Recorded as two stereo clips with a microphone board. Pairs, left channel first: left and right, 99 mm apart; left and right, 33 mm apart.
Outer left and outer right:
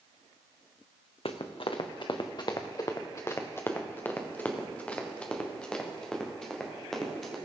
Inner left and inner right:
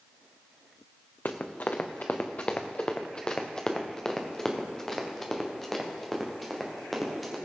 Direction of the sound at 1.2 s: 70° left (ahead or behind).